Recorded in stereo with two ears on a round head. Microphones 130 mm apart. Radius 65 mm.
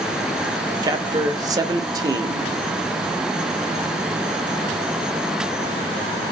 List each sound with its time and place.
0.8 s a man speaking: 25° right (ahead or behind), 0.6 m